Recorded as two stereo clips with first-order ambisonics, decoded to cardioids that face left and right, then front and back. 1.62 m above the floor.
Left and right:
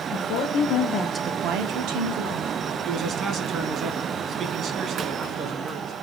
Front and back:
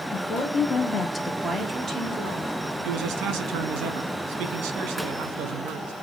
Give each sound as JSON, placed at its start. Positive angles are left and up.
{"t": 0.1, "sound": "a woman speaking", "azimuth_deg": 65, "distance_m": 1.5}
{"t": 2.9, "sound": "a man speaking", "azimuth_deg": -145, "distance_m": 1.0}